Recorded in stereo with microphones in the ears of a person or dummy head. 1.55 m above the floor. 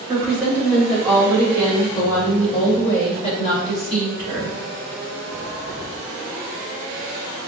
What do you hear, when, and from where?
0.1 s a woman speaking: 10° right (ahead or behind), 1.8 m; by 4.6 s 35° left (ahead or behind), 3.5 m